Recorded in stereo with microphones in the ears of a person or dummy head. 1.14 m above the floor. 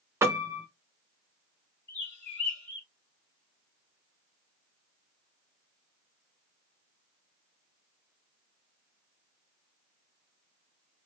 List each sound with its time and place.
0.2 s a piano: 10° right (ahead or behind), 0.6 m
1.9 s a bird: 70° left (ahead or behind), 3.5 m